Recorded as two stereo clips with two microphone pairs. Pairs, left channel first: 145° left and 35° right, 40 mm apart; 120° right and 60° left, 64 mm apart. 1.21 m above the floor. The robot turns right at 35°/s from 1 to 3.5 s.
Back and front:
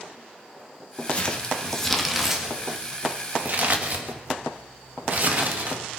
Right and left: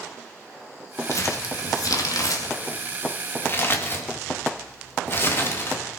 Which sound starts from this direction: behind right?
Crumpling, at 1.1 s.